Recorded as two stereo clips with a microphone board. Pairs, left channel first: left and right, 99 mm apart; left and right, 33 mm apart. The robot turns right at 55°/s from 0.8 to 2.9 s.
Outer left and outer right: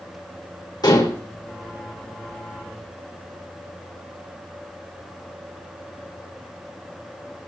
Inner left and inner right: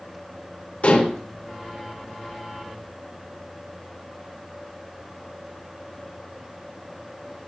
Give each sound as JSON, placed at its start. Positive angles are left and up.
{"t": 0.8, "sound": "dishes clattering", "side_deg": 45, "distance_m": 3.5}